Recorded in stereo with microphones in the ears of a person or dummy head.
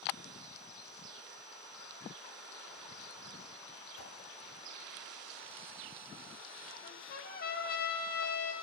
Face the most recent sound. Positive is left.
turn(degrees=55)  # may be behind; listen again after turning